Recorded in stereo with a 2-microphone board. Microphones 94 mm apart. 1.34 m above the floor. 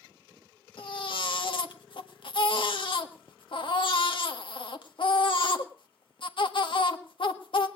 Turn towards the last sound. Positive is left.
turn(degrees=60)  # may be behind; listen again after turning